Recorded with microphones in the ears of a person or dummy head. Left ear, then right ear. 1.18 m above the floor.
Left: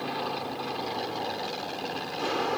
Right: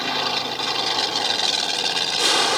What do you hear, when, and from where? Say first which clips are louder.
0.0 s an aircraft: right 9 dB; 55° right (ahead or behind); by 2.6 s 60° right (ahead or behind)